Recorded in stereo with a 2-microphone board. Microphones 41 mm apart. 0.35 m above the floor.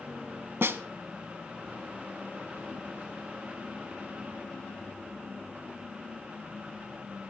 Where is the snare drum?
65° right (ahead or behind), 1.1 m.